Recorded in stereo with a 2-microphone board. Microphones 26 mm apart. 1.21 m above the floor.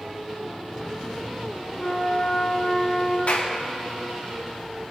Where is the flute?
50° left (ahead or behind), 4 m.